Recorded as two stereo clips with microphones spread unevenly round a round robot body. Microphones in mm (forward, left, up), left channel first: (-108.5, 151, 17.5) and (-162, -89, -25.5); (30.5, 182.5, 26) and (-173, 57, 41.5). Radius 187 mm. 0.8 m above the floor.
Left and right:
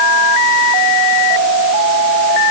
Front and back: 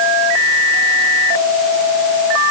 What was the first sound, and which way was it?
Only background noise.